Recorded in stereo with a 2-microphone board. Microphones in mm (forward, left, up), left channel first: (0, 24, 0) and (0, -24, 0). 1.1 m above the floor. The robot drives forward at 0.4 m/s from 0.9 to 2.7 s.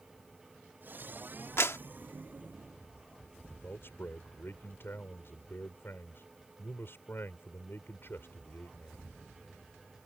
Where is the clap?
60° left (ahead or behind); by 1.8 s 65° left (ahead or behind).